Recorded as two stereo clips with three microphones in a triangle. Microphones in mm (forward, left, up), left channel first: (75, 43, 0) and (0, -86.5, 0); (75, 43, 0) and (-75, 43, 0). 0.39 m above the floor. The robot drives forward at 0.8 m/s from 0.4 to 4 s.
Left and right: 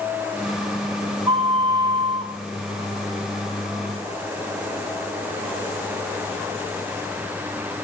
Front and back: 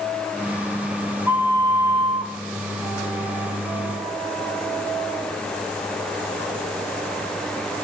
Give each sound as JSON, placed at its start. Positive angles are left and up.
{"t": 1.3, "sound": "a flute", "azimuth_deg": -120, "distance_m": 1.5}